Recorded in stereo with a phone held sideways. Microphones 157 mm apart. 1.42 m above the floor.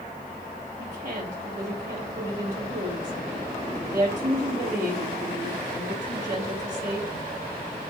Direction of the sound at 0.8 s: 50° right (ahead or behind).